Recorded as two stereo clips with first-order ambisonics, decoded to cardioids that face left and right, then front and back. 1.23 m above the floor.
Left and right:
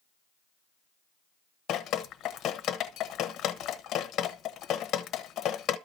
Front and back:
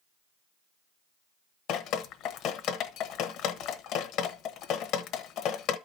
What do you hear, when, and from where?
1.7 s dripping: 35° left, 1.0 m